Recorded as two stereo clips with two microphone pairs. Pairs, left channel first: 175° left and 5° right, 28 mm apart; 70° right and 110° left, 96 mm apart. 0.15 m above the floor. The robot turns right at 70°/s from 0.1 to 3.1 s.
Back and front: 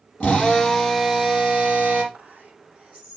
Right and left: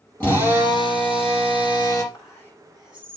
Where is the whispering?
25° right, 6 m; by 3.2 s 40° left, 6 m.